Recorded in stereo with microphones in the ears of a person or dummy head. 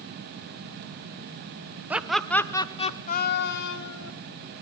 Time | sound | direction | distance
1.9 | laughter | 5° right (ahead or behind) | 1.3 m